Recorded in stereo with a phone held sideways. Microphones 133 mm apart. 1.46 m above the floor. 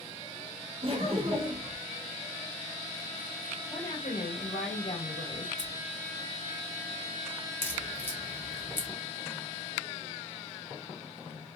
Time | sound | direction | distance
0.8 | laughter | 45° right (ahead or behind) | 1.2 m
3.7 | a woman speaking | 80° left | 1.7 m
5.6 | scissors | 15° left (ahead or behind) | 2.5 m
7.6 | a crack | 15° left (ahead or behind) | 1.0 m